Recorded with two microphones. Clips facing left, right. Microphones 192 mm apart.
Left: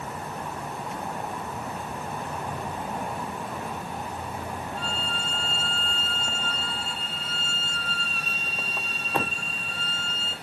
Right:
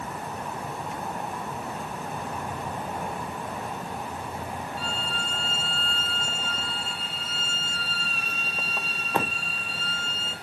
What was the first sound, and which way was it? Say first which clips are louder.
A violin: even; 5° right (ahead or behind).